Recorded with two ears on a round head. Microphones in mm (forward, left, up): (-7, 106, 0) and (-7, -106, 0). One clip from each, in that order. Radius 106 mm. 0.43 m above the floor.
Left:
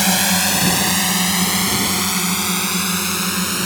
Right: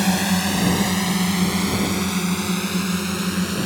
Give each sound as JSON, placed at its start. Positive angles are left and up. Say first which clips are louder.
{"t": 0.0, "sound": "a drone", "louder": "left 5 dB", "side_deg": 45}